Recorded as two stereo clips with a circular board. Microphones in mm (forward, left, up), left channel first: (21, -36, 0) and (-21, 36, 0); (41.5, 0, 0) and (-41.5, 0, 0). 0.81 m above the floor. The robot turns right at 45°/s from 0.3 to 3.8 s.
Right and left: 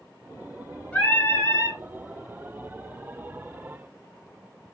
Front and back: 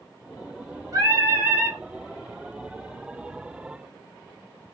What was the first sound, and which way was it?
Singing, 135° right.